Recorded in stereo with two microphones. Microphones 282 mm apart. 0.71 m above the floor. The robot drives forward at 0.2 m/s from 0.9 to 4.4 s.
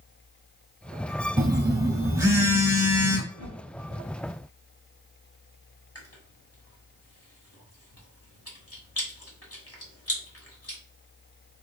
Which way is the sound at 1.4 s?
15° right (ahead or behind).